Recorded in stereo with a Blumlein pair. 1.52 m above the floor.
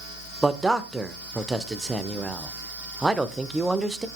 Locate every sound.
0.4 s a man speaking: 5° right, 1.2 m